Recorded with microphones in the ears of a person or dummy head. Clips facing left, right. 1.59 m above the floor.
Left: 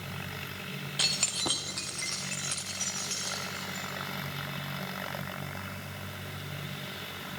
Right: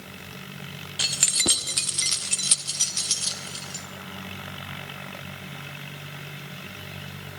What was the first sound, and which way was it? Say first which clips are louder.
Keys jangling: right 7 dB; centre (ahead or behind).